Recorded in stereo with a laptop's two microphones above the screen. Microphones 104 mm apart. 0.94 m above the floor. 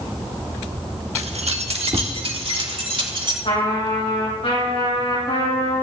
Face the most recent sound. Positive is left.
turn(degrees=75)  # may be behind; listen again after turning